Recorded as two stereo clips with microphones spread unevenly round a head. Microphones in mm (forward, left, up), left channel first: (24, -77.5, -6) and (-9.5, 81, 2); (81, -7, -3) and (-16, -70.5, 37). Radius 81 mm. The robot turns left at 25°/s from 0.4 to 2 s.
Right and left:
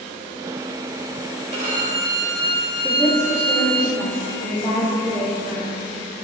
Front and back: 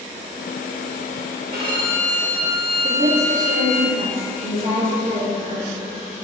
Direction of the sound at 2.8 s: 170° right.